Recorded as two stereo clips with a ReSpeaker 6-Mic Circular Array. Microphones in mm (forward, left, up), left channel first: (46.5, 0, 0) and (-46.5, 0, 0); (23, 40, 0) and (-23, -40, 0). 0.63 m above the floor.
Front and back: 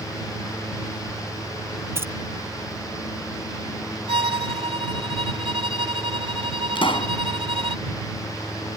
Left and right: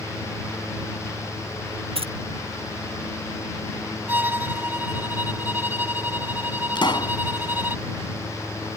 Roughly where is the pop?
Ahead left.